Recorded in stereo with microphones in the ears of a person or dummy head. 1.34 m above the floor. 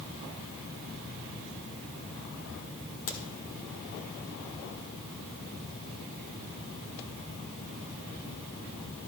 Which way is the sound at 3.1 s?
65° left (ahead or behind).